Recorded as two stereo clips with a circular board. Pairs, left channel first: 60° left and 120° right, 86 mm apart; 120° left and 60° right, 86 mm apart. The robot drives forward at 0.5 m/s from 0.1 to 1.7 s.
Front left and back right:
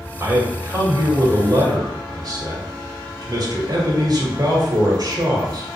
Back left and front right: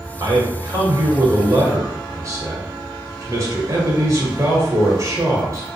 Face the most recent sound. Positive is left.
turn(degrees=-100)